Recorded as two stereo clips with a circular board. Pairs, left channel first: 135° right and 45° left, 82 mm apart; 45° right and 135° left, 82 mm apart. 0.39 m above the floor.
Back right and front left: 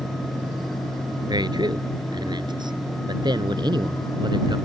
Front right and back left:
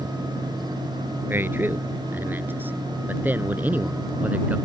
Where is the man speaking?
70° left; by 4.6 s 65° left.